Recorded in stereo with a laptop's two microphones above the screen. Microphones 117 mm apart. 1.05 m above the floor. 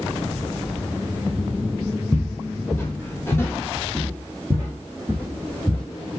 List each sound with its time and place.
2.1 s footsteps: 15° left (ahead or behind), 1.3 m; by 5.8 s 10° left (ahead or behind), 1.8 m